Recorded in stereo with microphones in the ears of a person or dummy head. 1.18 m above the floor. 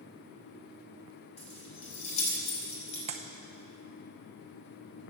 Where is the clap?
35° right (ahead or behind), 0.7 m.